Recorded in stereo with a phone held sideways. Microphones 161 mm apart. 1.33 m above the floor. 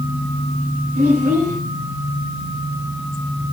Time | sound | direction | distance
0.9 | a child speaking | 70° right (ahead or behind) | 5 m